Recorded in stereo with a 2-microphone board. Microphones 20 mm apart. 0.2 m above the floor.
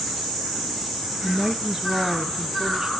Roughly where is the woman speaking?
Centre.